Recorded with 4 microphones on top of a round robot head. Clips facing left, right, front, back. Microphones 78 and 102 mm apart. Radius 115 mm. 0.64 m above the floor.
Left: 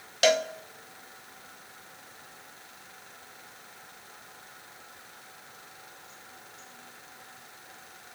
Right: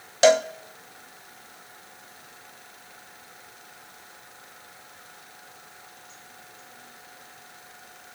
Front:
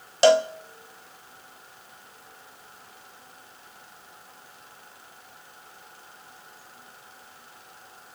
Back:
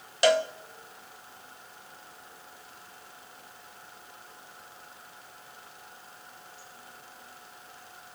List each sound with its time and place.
0.2 s a cowbell: 45° right, 0.7 m